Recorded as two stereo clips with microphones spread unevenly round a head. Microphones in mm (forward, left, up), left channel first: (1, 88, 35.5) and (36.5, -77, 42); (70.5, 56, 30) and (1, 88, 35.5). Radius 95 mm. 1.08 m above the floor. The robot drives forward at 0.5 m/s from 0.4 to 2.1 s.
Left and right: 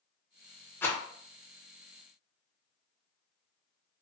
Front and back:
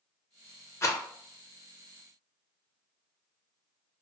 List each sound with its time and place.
0.8 s a rattle: 25° left, 0.7 m; by 1.0 s 30° left, 0.6 m